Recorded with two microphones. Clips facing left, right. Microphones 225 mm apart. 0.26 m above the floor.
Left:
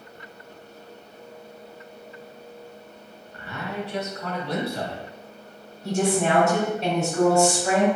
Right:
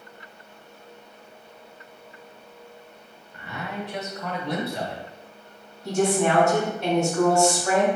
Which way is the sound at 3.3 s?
20° right (ahead or behind).